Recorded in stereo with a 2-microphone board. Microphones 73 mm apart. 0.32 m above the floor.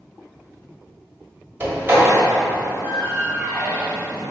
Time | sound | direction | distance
1.6 | a door slam | 30° right (ahead or behind) | 1.1 m